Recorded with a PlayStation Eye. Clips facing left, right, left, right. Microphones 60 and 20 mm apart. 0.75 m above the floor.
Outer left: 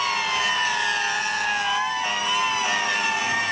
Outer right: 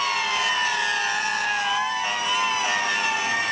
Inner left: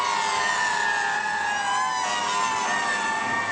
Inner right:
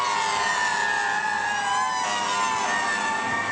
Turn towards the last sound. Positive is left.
No sound to turn to.